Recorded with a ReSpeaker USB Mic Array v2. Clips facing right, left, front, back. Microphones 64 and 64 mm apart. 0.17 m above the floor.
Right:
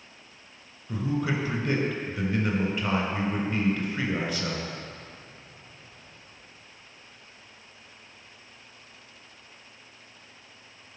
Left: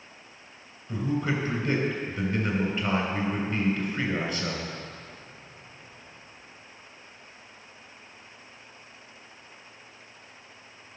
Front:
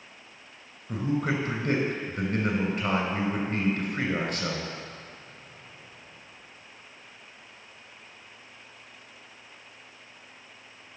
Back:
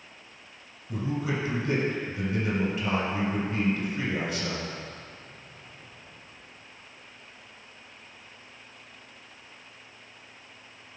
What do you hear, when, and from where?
0.9 s a man speaking: 5° right, 2.5 m